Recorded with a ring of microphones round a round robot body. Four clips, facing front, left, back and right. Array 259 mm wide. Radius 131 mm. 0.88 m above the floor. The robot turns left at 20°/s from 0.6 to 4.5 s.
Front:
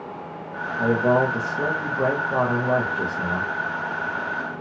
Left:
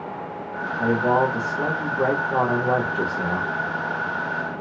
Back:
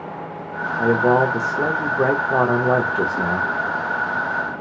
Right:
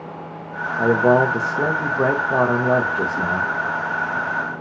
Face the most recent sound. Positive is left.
turn(degrees=165)